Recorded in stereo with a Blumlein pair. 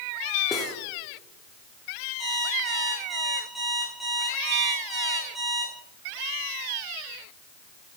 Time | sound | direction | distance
0.5 | cutlery clinking | 15° left | 1.9 m
2.2 | an alarm clock | straight ahead | 6.5 m